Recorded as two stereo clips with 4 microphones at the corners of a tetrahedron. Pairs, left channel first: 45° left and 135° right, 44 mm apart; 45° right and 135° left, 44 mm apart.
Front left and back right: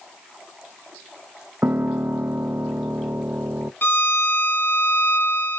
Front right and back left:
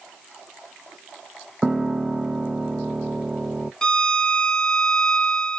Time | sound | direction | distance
1.6 | a piano | 145° right | 0.7 m
3.8 | a violin | 25° left | 0.8 m